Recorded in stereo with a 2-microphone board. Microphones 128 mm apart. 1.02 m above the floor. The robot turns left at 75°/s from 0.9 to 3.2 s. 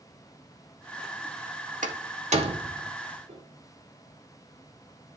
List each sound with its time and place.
1.8 s a door slam: 80° right, 1.9 m; by 2.9 s 20° right (ahead or behind), 1.9 m
3.3 s a piano: 55° right (ahead or behind), 4 m